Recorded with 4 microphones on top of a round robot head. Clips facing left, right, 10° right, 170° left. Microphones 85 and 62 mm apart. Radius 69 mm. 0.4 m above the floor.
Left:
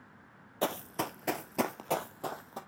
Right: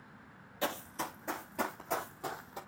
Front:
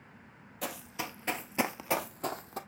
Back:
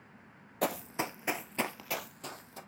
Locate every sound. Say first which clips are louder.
0.6 s running footsteps: left 4 dB, back 6 dB; 140° left, 0.8 m; by 2.6 s 30° left, 1.2 m